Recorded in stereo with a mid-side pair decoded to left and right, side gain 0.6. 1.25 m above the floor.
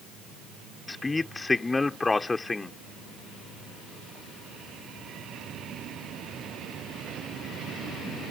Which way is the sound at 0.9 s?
15° left.